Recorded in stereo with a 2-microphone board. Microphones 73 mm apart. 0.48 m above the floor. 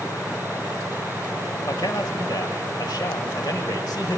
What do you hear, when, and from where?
1.7 s a man speaking: 65° left (ahead or behind), 2 m